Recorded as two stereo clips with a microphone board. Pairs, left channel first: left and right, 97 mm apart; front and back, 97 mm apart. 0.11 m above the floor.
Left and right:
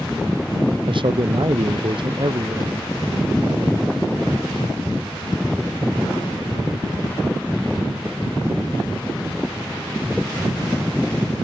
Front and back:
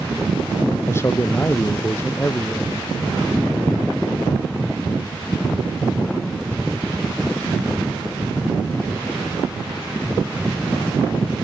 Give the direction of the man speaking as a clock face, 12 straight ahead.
2 o'clock.